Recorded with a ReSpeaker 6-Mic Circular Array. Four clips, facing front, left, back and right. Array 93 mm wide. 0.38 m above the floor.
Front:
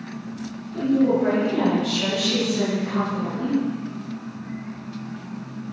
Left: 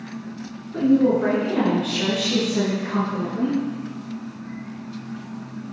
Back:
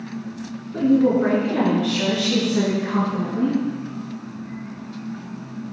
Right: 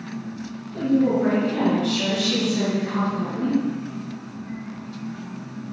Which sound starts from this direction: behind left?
A woman speaking, at 0.7 s.